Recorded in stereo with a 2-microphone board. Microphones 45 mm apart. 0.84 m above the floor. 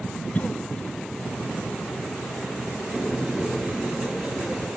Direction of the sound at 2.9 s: 10° right (ahead or behind).